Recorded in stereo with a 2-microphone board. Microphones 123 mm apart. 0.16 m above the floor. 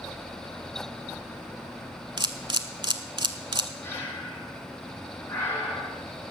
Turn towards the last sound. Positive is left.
turn(degrees=20)  # may be behind; listen again after turning